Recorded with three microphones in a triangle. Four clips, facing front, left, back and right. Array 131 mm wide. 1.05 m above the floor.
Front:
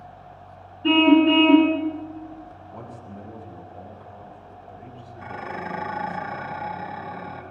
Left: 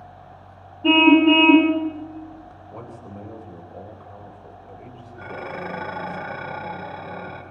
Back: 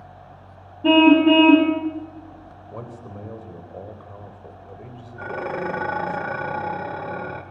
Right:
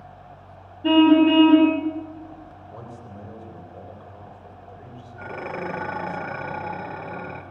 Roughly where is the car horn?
Behind.